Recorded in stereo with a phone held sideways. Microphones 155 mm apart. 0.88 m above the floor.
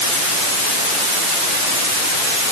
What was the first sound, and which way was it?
Only background noise.